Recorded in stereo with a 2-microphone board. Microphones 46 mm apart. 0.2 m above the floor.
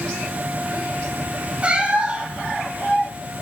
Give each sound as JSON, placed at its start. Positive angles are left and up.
{"t": 1.6, "sound": "a cat meowing", "side_deg": -25, "distance_m": 1.0}